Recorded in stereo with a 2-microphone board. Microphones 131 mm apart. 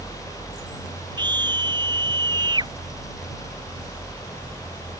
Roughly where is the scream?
Right.